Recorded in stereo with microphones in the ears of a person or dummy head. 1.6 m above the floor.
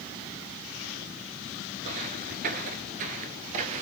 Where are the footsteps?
25° right (ahead or behind), 1.7 m; by 3.8 s 30° right (ahead or behind), 2 m.